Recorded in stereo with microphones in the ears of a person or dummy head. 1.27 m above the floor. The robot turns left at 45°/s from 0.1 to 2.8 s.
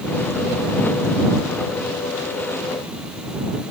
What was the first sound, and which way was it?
Only background noise.